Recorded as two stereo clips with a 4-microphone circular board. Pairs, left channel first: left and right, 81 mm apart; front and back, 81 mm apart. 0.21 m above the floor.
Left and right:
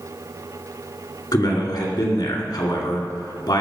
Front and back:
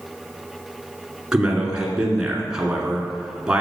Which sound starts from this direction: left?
A man speaking, at 1.3 s.